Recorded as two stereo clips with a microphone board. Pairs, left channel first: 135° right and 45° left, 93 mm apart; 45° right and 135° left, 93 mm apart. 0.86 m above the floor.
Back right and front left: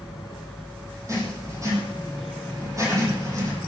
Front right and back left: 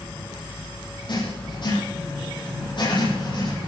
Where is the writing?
10° right, 8 m.